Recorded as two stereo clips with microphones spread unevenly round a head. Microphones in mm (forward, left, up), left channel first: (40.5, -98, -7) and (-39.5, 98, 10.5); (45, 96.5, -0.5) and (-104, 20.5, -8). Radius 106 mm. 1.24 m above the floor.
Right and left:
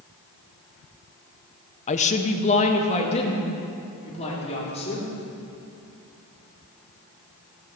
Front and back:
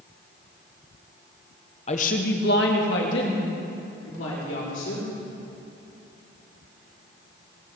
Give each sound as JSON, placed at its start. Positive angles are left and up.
{"t": 1.9, "sound": "a woman speaking", "azimuth_deg": -25, "distance_m": 0.7}